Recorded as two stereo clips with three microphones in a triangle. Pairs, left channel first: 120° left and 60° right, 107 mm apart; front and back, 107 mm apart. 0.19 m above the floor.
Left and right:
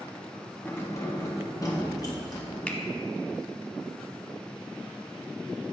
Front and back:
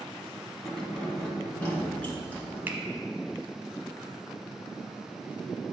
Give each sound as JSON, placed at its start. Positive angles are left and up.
{"t": 0.7, "sound": "keys jangling", "azimuth_deg": 80, "distance_m": 1.0}
{"t": 2.7, "sound": "a finger snap", "azimuth_deg": 170, "distance_m": 0.8}